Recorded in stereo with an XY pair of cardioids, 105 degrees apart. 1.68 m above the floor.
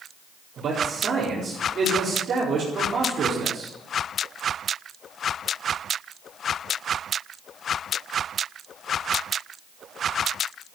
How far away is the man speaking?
About 4.5 m.